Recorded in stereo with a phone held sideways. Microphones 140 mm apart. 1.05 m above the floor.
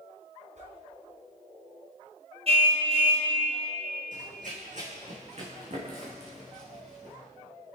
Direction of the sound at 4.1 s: 65° right (ahead or behind).